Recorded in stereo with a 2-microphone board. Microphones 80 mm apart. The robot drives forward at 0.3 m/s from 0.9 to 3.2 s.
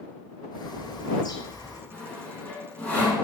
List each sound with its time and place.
0.5 s a bird: 65° left (ahead or behind), 0.6 m; by 1.8 s 50° left (ahead or behind), 0.7 m
1.9 s sawing: 15° left (ahead or behind), 1.2 m